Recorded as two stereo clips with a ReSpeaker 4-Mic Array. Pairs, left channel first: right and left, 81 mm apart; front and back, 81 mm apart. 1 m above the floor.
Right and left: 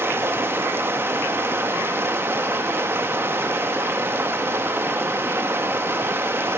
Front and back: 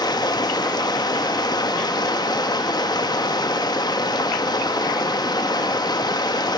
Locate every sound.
0.0 s running water: 30° left, 1.5 m